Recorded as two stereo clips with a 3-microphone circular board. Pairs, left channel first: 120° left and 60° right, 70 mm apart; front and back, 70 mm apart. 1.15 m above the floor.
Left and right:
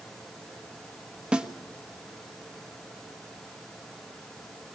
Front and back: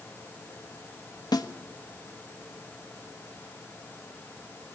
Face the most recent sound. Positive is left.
turn(degrees=15)